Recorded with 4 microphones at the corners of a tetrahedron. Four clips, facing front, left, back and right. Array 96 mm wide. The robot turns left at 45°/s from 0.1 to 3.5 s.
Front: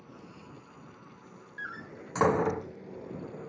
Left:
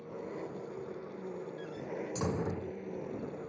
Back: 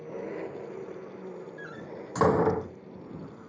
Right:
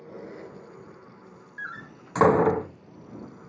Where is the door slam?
70° right; by 2.8 s 125° right.